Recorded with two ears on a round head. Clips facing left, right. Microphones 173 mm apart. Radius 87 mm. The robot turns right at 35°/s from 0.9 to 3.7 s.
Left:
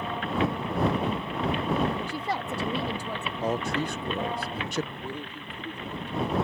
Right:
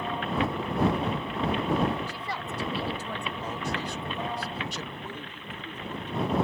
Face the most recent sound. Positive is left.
turn(degrees=10)  # may be behind; listen again after turning